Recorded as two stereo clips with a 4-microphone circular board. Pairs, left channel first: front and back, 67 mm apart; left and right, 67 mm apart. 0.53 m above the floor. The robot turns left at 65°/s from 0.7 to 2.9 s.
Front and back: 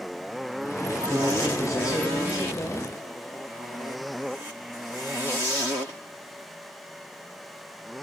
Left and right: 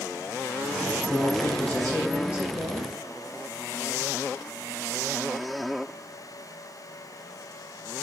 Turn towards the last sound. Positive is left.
turn(degrees=-65)